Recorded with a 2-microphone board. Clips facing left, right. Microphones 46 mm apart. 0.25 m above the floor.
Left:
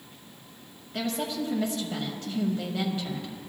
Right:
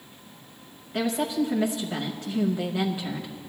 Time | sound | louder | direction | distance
0.9 | a woman speaking | right 5 dB | 15° right (ahead or behind) | 0.9 m